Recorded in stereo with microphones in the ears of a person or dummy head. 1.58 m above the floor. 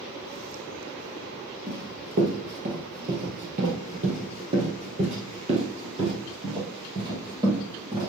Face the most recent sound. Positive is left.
turn(degrees=-20)  # may be behind; listen again after turning